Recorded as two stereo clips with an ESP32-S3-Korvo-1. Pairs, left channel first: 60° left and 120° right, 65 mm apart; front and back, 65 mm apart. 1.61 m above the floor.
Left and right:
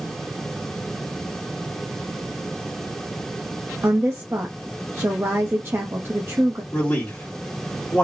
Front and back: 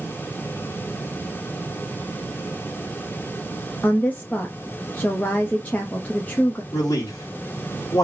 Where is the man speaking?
Straight ahead, 1.6 m.